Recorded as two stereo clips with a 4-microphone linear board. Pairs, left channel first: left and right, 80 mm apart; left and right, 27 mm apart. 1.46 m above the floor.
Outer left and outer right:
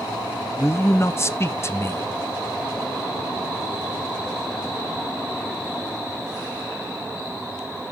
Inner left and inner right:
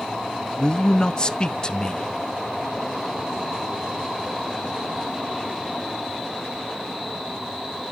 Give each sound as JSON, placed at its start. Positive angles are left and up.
{"t": 0.6, "sound": "a man speaking", "side_deg": 35, "distance_m": 0.5}